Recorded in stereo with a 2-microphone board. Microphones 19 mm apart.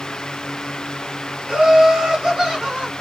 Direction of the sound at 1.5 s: 35° right (ahead or behind).